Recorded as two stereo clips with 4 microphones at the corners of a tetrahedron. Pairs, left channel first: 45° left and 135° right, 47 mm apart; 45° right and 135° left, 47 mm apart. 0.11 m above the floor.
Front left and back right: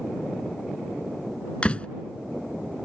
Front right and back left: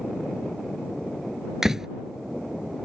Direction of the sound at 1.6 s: 70° left.